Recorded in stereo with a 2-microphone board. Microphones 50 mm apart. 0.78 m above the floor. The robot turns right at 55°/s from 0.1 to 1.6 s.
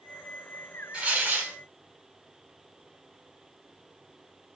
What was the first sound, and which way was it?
Tearing paper, 145° right.